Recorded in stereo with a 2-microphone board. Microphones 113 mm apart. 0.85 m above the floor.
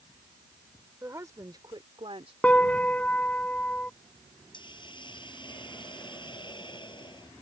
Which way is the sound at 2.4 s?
10° left (ahead or behind).